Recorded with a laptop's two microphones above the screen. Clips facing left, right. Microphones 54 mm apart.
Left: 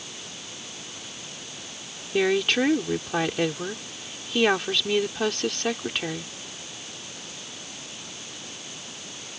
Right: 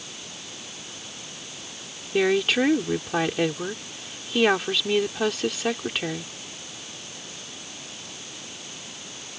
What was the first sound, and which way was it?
A woman speaking, 5° right (ahead or behind).